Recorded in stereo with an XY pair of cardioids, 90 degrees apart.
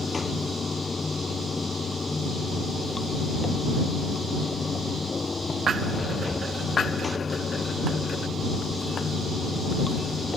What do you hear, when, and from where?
0.0 s running water: 30° left